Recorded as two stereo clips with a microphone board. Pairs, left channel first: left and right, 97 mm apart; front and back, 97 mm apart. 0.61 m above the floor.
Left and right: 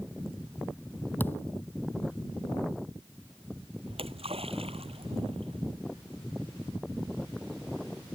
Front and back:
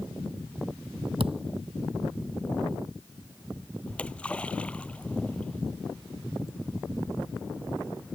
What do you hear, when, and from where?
1.2 s a thud: 160° left
3.9 s a splash: 80° right